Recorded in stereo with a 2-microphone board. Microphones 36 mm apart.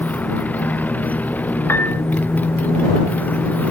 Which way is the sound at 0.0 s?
50° left (ahead or behind).